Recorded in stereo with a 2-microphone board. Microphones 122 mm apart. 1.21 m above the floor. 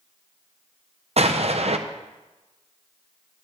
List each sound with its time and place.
1.2 s an explosion: 60° right (ahead or behind), 0.7 m